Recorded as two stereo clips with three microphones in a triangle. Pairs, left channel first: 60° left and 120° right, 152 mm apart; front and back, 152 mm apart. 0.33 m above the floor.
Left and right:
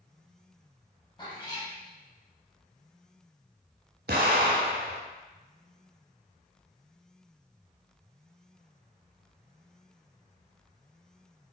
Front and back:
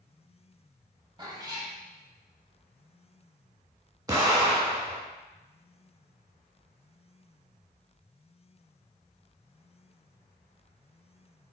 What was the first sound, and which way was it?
A cat meowing, 120° left.